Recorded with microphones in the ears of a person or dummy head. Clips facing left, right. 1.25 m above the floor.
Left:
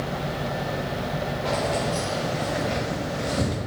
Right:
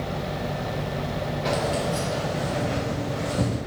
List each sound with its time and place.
1.4 s keys jangling: 25° right (ahead or behind), 0.7 m; by 3.6 s 40° left (ahead or behind), 1.9 m